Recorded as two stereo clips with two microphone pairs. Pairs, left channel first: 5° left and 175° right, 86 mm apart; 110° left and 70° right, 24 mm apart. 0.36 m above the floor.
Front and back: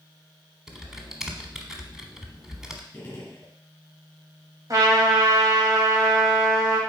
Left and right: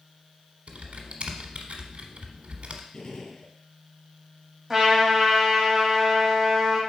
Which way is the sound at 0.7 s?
90° right.